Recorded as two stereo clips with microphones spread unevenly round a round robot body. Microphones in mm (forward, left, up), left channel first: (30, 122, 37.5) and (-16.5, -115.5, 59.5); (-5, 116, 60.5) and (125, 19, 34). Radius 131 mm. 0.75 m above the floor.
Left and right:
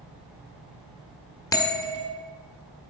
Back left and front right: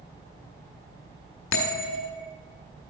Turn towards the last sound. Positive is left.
turn(degrees=155)